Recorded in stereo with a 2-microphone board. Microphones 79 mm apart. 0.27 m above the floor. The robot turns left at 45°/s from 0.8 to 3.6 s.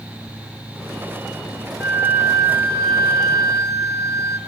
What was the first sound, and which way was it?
A flute, 40° right.